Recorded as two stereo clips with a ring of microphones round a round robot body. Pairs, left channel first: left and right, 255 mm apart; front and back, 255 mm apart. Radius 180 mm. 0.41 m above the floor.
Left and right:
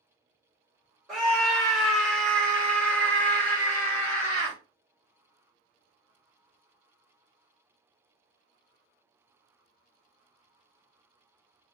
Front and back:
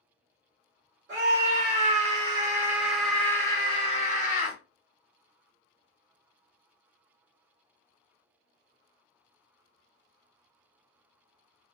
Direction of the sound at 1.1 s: Straight behind.